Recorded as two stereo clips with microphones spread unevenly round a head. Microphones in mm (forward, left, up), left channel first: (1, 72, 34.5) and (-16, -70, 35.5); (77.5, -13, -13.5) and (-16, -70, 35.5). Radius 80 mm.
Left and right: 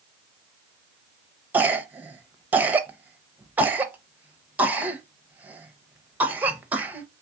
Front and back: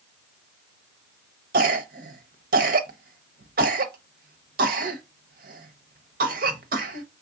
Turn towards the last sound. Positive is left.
turn(degrees=-175)